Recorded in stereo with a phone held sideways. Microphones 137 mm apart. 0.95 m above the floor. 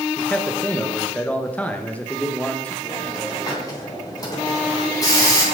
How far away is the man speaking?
About 0.9 m.